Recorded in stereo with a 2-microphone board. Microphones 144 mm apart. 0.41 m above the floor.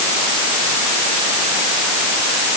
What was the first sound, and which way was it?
Only background noise.